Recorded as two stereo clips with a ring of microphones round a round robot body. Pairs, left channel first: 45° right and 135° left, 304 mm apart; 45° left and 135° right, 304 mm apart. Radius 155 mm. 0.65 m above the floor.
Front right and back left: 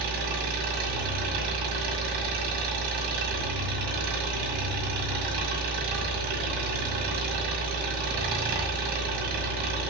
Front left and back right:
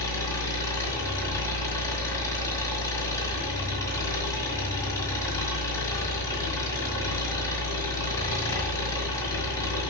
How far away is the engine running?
About 1.9 m.